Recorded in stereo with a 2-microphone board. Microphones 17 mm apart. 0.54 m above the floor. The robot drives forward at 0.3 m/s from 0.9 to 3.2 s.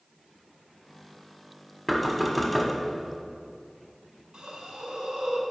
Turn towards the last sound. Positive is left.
turn(degrees=-80)